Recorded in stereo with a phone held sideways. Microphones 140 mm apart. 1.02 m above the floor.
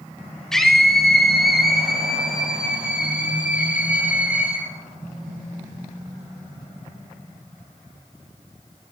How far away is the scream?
About 5 m.